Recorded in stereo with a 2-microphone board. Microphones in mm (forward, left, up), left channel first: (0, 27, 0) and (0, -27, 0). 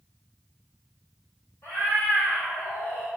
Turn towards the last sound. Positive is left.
turn(degrees=45)  # may be behind; listen again after turning